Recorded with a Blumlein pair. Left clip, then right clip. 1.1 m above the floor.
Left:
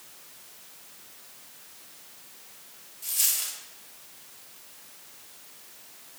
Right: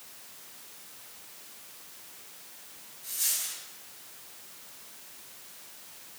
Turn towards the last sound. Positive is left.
turn(degrees=45)